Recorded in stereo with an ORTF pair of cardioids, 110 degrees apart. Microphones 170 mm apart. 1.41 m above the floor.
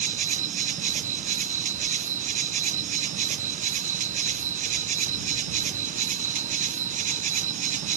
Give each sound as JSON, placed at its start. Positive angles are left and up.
{"t": 0.0, "sound": "an insect", "azimuth_deg": -50}